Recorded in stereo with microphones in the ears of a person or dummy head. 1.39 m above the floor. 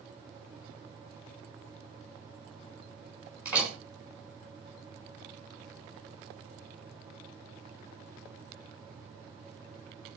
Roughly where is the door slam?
Centre.